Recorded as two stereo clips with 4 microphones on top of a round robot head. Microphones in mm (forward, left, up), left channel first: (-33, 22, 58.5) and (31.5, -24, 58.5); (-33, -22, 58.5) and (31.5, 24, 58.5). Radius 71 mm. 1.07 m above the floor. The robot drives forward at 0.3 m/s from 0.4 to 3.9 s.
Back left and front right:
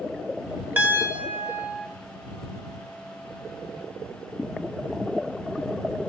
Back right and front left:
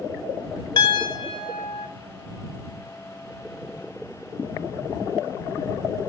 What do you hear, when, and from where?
0.8 s a piano: 105° right, 1.6 m; by 1.9 s 115° right, 1.7 m